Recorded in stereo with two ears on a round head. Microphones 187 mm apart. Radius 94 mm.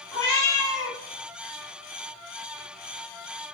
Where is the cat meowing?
15° left (ahead or behind), 1.2 m.